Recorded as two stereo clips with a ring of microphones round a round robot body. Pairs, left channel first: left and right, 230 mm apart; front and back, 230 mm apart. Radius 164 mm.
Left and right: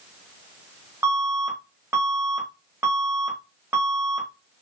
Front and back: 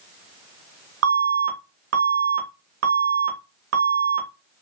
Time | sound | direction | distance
1.0 | an alarm | 170° right | 1.0 m